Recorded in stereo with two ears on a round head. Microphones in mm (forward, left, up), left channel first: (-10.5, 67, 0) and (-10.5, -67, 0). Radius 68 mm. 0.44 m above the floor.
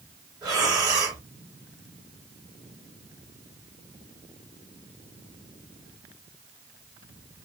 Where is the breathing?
25° right (ahead or behind), 1.6 m.